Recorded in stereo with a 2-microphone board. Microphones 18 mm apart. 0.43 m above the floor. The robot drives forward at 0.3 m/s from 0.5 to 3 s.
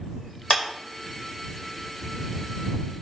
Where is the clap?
55° left (ahead or behind), 1.8 m.